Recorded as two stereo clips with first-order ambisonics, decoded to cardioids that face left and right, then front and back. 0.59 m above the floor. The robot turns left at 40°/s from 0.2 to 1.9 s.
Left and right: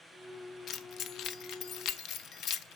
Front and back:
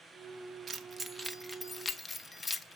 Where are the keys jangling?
125° left, 0.5 m; by 2.8 s 75° left, 0.5 m.